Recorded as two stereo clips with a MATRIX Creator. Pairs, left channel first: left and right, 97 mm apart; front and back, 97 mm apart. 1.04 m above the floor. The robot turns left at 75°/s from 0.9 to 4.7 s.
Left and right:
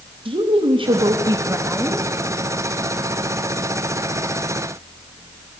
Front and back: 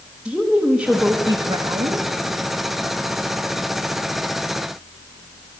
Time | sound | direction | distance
0.2 | a woman speaking | 90° right | 1.1 m